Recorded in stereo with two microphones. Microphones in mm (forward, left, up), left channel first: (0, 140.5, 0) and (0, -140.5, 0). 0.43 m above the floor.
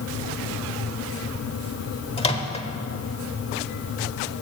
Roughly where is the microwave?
Left.